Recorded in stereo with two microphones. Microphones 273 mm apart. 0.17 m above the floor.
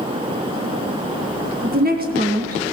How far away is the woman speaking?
About 1.8 m.